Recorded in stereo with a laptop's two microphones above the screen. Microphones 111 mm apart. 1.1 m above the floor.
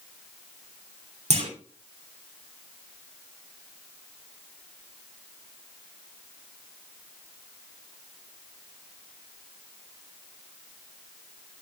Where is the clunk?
85° right, 3.5 m.